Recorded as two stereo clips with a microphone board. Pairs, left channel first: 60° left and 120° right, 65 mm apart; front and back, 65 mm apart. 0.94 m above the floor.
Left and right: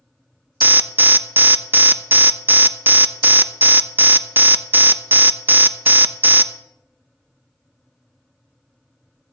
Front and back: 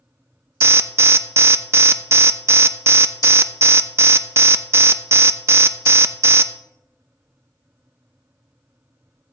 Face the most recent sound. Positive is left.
turn(degrees=-160)